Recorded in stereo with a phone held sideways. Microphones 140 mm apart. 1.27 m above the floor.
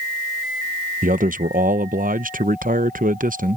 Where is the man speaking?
65° right (ahead or behind).